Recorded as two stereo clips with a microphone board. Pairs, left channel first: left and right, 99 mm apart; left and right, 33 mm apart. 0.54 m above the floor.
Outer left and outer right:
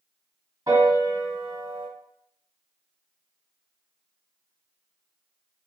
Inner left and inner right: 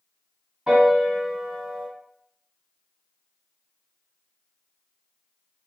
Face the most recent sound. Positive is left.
turn(degrees=-40)  # may be behind; listen again after turning